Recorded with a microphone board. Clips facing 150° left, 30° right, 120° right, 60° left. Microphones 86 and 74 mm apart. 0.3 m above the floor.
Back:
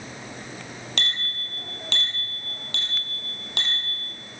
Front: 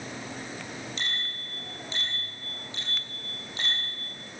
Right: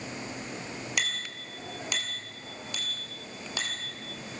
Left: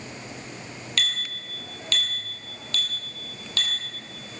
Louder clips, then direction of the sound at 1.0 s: Back 3 dB, left 4 dB; 165° left.